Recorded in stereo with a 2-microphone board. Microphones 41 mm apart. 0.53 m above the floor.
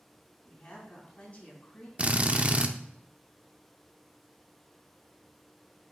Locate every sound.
0.5 s a woman speaking: 30° left (ahead or behind), 3.5 m
2.0 s a drill: 35° right (ahead or behind), 0.5 m